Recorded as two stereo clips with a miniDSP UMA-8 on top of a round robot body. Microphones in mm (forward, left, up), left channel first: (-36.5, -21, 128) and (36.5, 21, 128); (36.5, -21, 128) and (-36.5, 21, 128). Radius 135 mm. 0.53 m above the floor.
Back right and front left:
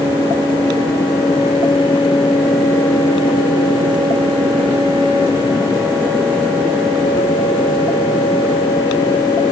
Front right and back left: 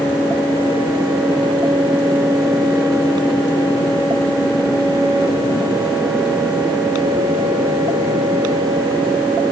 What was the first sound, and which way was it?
Only background noise.